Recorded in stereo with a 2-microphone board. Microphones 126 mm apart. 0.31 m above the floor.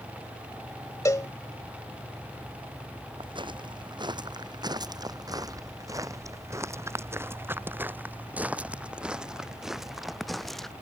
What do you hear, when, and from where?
1.1 s a cowbell: 25° left (ahead or behind)
3.2 s footsteps: 40° right (ahead or behind); by 10.7 s 5° left (ahead or behind)